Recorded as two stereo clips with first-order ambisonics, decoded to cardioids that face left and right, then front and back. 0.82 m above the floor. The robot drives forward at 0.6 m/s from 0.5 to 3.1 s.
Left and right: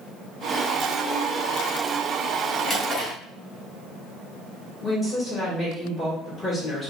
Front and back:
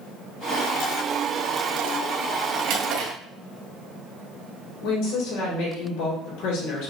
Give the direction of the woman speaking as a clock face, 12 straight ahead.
12 o'clock.